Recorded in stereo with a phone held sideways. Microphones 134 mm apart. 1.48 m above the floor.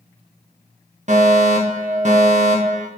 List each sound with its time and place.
1.1 s a fire alarm: 60° right (ahead or behind), 1.9 m